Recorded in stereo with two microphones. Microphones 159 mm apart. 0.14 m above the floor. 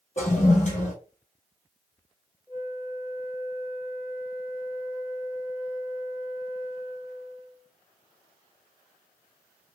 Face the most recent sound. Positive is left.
turn(degrees=15)  # may be behind; listen again after turning